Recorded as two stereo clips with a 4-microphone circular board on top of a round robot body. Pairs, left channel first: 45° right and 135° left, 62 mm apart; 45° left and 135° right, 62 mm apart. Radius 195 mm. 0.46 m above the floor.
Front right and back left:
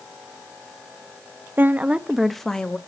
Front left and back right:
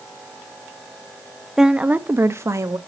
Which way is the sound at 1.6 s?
150° left.